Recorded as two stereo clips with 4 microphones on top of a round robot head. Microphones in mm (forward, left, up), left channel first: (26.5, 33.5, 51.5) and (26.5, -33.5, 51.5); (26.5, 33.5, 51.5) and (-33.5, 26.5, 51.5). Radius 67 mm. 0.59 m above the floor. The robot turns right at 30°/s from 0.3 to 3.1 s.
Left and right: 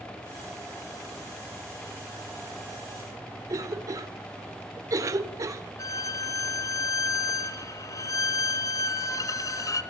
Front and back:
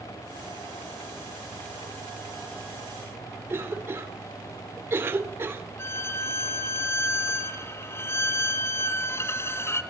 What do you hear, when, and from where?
3.5 s a cough: 125° right, 2.5 m
5.8 s a violin: 55° left, 1.9 m